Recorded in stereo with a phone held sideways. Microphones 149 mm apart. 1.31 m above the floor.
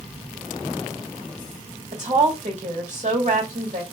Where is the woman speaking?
55° right (ahead or behind), 2 m.